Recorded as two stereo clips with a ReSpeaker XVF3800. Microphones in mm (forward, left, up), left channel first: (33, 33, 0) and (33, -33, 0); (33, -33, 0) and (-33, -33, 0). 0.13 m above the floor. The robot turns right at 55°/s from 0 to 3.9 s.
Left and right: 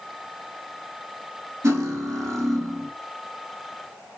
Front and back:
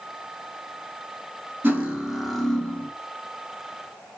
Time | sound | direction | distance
1.6 | cutlery clinking | 125° right | 1.5 m